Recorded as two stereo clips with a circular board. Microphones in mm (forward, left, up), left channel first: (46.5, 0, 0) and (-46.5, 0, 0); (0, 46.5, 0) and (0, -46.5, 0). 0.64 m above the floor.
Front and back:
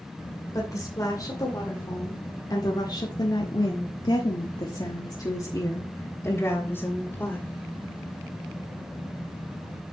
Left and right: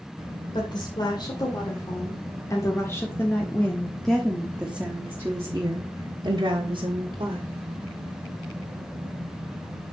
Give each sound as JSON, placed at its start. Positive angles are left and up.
{"t": 0.5, "sound": "a woman speaking", "azimuth_deg": 55, "distance_m": 2.5}